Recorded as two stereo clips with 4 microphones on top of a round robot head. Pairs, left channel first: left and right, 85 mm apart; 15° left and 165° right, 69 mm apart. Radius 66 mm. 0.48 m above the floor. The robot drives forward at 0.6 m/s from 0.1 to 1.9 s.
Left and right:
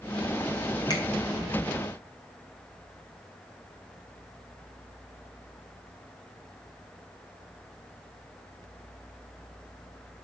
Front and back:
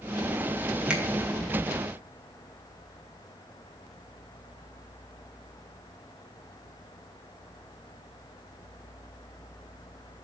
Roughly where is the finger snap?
Behind left.